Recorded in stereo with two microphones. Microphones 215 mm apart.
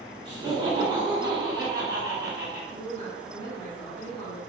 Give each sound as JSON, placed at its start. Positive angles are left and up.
{"t": 0.2, "sound": "laughter", "side_deg": -25, "distance_m": 1.7}
{"t": 2.7, "sound": "a woman speaking", "side_deg": 30, "distance_m": 1.8}